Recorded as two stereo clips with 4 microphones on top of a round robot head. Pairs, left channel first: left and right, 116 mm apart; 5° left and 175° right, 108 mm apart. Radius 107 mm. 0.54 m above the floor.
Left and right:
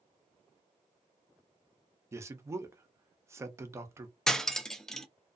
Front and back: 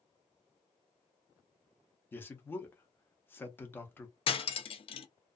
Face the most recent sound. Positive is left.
turn(degrees=5)